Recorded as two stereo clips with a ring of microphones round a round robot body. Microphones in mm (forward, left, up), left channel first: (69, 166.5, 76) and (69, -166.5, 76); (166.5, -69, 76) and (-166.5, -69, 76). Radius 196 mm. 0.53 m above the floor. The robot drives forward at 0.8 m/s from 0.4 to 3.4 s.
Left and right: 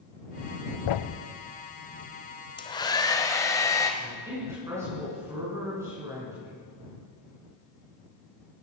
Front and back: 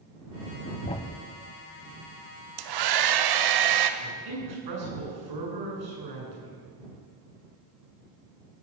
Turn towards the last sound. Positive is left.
turn(degrees=-170)